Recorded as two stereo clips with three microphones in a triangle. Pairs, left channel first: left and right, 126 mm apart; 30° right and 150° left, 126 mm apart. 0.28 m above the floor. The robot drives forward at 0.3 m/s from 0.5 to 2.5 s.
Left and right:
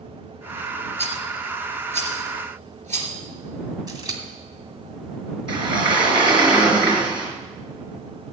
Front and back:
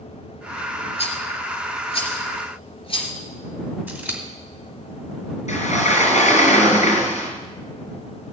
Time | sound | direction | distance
1.0 | a rattle | 65° right | 3 m
3.9 | scissors | 140° right | 2.5 m
5.5 | a sliding door | 40° right | 4 m